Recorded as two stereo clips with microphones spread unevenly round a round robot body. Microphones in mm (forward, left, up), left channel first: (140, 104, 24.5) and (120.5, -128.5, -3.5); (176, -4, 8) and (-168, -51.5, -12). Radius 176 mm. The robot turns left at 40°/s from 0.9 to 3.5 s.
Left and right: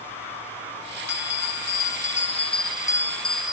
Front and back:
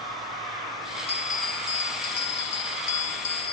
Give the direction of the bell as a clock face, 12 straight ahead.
9 o'clock.